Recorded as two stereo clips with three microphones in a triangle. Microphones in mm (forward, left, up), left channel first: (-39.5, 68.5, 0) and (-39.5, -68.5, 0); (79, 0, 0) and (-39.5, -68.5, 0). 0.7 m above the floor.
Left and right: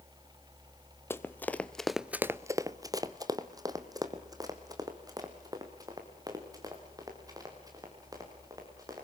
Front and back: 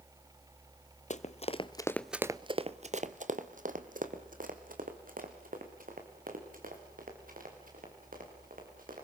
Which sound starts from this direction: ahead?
Running footsteps, at 1.1 s.